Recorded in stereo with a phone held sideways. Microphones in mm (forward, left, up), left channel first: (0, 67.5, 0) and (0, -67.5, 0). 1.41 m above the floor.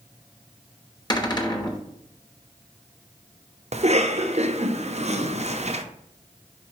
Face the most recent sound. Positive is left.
turn(degrees=-55)  # may be behind; listen again after turning